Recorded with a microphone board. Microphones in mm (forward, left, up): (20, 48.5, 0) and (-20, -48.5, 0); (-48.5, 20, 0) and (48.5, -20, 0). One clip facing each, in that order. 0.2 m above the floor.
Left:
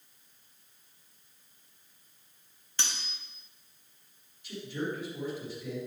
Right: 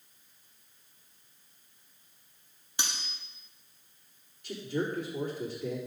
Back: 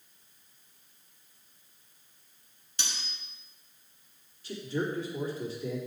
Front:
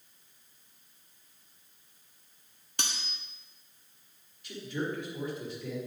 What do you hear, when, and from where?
2.8 s cutlery clinking: 40° right, 1.1 m
4.4 s a man speaking: 150° right, 4 m